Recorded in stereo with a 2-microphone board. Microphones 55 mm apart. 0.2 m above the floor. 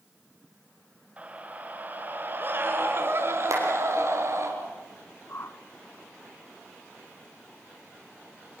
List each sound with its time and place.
1.2 s a scream: 25° right (ahead or behind), 3.5 m; by 4.5 s 60° right (ahead or behind), 4 m
3.5 s a clap: 70° right (ahead or behind), 5.5 m
5.3 s a whoosh: 55° left (ahead or behind), 0.8 m